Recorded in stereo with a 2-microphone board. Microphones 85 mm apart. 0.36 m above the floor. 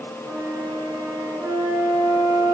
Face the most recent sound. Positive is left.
turn(degrees=-30)  # may be behind; listen again after turning